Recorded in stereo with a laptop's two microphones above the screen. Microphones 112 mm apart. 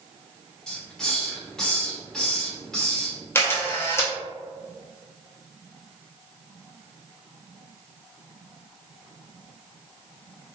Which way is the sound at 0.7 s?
5° left (ahead or behind).